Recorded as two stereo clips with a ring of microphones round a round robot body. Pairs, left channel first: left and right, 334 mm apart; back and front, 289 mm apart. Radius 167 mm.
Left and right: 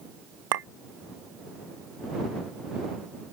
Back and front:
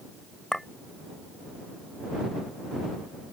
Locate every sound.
0.5 s a clink: 90° right